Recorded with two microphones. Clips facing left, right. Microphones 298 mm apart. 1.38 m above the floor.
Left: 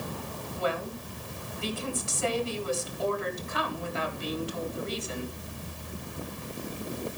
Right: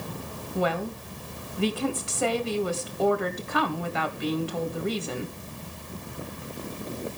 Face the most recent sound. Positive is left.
turn(degrees=-70)  # may be behind; listen again after turning